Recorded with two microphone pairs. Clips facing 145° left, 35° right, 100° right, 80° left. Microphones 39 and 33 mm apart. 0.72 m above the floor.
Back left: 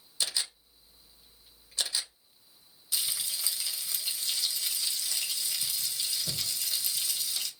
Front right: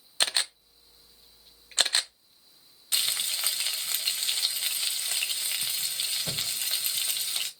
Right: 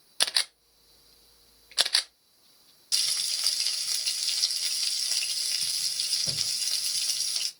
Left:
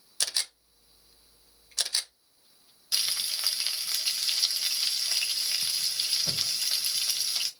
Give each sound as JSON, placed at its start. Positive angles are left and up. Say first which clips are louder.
{"t": 0.2, "sound": "a camera shutter", "louder": "front right 6 dB, right 4 dB", "azimuth_deg": -60, "distance_m": 0.6}
{"t": 2.9, "sound": "frying", "louder": "front right 6 dB, right 1 dB", "azimuth_deg": 5, "distance_m": 0.8}